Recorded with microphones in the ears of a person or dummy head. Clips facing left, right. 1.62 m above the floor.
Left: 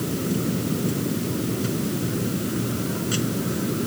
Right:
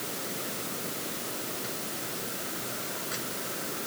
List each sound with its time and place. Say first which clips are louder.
0.0 s a machine running: left 13 dB; 45° left (ahead or behind)